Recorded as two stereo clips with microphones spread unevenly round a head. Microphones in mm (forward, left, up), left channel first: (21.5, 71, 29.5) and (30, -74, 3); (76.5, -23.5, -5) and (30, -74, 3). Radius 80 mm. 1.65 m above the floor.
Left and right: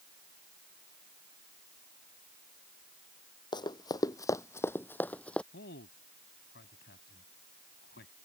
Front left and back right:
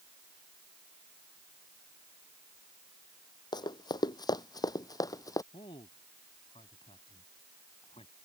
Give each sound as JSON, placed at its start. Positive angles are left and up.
{"t": 3.5, "sound": "running footsteps", "azimuth_deg": 40}
{"t": 5.5, "sound": "a man speaking", "azimuth_deg": 80}